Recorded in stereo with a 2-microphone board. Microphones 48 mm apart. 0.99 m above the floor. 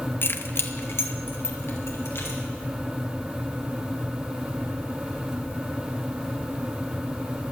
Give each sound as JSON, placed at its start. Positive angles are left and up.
{"t": 0.2, "sound": "keys jangling", "side_deg": 50, "distance_m": 0.7}